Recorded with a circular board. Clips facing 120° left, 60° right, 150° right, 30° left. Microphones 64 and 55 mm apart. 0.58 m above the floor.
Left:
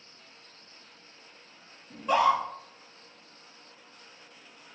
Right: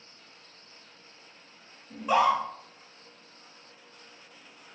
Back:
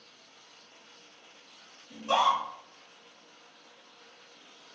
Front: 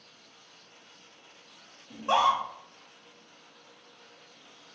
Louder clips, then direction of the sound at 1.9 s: Even, front 1 dB; 35° left.